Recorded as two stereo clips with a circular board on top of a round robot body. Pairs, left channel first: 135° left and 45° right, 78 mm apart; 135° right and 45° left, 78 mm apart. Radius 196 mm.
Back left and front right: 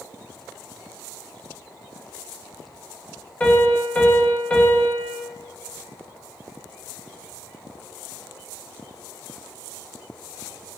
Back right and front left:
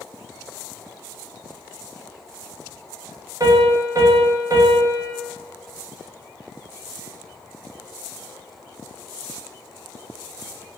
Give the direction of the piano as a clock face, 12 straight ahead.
10 o'clock.